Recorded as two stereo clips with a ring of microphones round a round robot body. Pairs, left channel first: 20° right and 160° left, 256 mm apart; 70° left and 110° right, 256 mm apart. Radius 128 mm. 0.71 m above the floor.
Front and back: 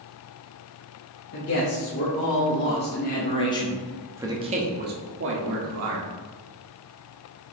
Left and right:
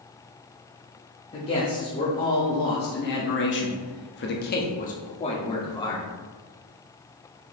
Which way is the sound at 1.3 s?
5° left.